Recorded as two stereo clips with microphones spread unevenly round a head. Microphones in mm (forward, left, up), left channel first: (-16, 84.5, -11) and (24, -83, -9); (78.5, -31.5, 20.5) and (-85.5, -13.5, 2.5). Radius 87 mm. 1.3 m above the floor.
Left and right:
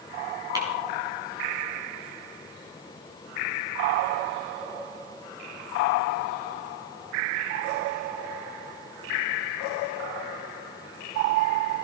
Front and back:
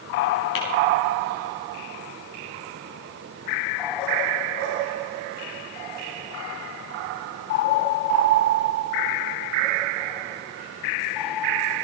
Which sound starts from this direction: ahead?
Tapping, at 0.6 s.